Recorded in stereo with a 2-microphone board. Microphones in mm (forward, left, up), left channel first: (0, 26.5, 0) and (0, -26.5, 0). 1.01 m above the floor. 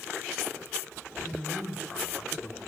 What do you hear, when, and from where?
1.2 s a man speaking: 10° left (ahead or behind), 3.5 m; by 2.6 s 20° left (ahead or behind), 1.9 m